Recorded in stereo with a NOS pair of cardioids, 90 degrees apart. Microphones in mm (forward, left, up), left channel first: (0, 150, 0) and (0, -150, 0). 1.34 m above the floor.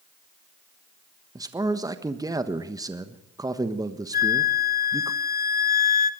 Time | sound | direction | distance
1.4 | a man speaking | 10° right | 1.3 m
4.1 | a flute | 30° left | 1.5 m